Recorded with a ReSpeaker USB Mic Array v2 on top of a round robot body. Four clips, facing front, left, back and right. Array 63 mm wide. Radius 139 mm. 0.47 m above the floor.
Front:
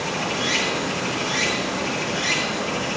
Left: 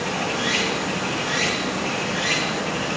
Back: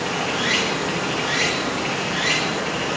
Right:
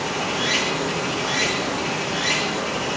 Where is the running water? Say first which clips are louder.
Even, back 2 dB; 170° right, 7 m.